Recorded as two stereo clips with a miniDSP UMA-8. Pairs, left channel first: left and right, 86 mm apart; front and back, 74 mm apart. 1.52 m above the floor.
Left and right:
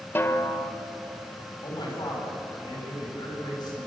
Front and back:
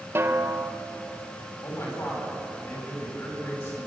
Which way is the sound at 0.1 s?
140° left.